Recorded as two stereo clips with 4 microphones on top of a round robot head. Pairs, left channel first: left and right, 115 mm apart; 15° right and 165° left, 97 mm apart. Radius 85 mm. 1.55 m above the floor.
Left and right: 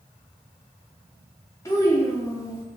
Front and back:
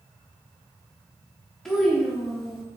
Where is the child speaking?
65° left, 0.6 m.